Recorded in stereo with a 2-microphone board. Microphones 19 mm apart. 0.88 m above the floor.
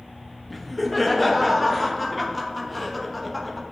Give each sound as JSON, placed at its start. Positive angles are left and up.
{"t": 0.5, "sound": "laughter", "side_deg": 0, "distance_m": 1.0}